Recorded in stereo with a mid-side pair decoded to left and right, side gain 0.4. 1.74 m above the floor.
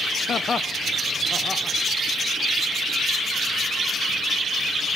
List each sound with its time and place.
0.3 s laughter: 60° left, 1.0 m; by 1.8 s 20° left, 2.5 m